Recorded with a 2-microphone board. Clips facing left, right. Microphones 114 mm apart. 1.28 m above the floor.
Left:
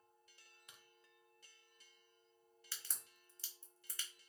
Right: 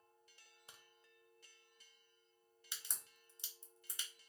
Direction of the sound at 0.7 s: 30° right (ahead or behind).